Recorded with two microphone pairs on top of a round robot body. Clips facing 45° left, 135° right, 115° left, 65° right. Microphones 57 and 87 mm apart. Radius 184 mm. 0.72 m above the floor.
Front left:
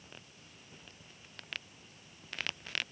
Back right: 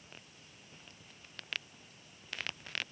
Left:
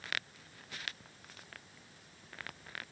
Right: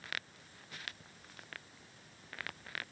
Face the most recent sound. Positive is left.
No sound to turn to.